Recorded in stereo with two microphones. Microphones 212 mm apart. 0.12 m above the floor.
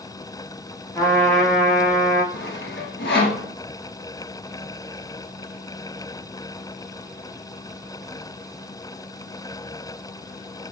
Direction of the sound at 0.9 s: 5° left (ahead or behind).